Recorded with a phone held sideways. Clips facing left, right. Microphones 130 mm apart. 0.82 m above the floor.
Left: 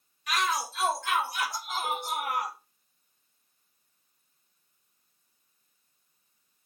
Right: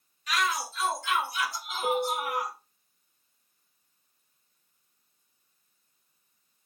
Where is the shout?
60° left (ahead or behind), 2.5 m; by 2.5 s 80° left, 4 m.